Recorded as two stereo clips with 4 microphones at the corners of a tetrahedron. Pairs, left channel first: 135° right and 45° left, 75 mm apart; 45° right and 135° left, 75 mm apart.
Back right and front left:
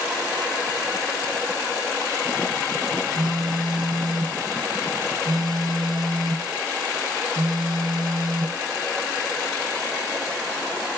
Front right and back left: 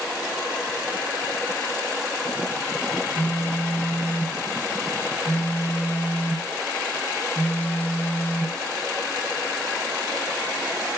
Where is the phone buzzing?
20° left, 5 m.